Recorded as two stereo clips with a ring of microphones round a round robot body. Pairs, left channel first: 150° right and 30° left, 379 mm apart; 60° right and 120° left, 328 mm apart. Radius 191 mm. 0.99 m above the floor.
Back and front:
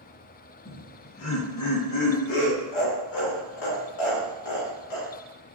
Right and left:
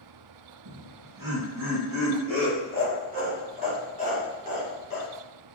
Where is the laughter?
145° left, 1.2 m; by 5.1 s 165° right, 3 m.